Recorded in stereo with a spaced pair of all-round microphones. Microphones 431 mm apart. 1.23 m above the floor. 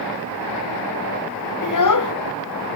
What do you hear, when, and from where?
1.6 s a child speaking: 45° left (ahead or behind), 0.5 m